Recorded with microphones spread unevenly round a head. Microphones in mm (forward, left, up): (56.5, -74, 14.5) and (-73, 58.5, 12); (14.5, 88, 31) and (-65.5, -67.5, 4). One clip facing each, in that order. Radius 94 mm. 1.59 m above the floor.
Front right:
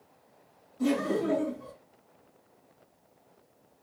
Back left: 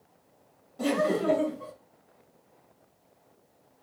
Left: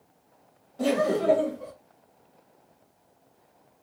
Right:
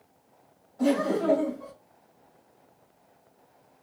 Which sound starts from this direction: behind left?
Laughter, at 0.8 s.